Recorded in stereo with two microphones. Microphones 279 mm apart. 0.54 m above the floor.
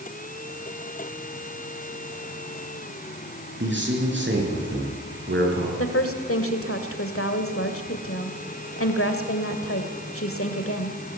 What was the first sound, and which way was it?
A man speaking, 40° right (ahead or behind).